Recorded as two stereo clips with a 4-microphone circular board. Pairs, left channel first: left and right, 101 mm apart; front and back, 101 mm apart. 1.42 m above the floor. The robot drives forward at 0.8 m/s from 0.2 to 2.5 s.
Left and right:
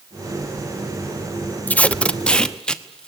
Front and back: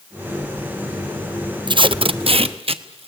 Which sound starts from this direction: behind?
Tape being pulled, at 1.7 s.